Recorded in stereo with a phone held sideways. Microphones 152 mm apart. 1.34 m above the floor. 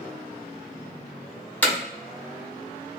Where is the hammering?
10° left (ahead or behind), 1.5 m.